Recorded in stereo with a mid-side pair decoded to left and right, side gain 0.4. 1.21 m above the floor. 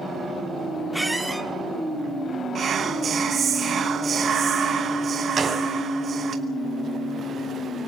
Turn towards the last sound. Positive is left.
turn(degrees=-45)